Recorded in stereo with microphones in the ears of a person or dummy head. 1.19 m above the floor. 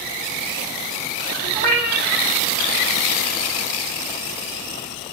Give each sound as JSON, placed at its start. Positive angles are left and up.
{"t": 1.5, "sound": "a cat meowing", "side_deg": -35, "distance_m": 1.3}